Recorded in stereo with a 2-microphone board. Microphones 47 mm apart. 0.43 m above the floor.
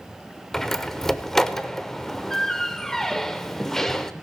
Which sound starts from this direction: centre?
A door slam, at 0.5 s.